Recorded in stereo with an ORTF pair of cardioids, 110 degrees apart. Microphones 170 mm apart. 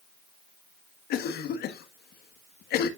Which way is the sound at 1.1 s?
70° left.